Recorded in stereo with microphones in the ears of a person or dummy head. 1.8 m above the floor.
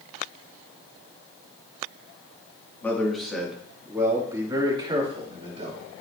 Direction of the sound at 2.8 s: 10° left (ahead or behind).